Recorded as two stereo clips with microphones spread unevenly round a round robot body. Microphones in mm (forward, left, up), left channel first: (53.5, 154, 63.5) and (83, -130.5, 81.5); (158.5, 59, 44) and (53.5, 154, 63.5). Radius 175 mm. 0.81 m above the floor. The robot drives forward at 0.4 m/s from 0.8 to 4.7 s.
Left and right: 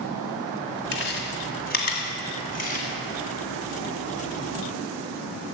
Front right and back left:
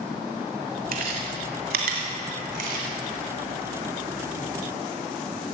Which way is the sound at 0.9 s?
155° left.